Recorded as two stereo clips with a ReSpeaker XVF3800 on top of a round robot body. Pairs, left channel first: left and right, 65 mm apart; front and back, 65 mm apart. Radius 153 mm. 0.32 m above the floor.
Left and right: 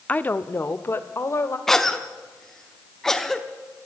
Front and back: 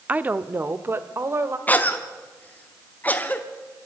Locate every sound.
0.1 s a woman speaking: 135° left, 0.9 m
1.7 s a cough: 15° left, 1.2 m